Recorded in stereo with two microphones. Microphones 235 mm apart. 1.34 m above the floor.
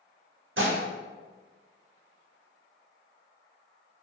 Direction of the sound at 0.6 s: 60° right (ahead or behind).